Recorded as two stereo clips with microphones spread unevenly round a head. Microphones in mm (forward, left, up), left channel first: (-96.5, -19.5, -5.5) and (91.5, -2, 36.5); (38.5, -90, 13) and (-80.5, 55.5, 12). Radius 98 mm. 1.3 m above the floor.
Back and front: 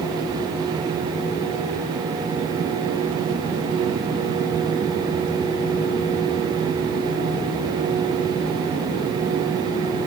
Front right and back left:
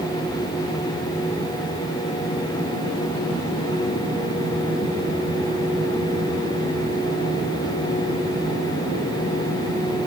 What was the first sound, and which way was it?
Only background noise.